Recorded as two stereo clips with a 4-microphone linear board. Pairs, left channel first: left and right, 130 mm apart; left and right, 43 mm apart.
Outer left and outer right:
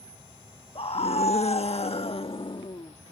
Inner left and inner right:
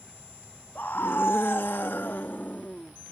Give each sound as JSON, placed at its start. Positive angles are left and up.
{"t": 0.8, "sound": "a scream", "side_deg": 45}